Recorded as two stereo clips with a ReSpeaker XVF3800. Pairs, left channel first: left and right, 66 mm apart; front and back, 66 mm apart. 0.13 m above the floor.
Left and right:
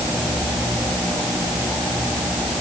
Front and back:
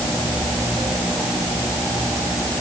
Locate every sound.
Only background noise.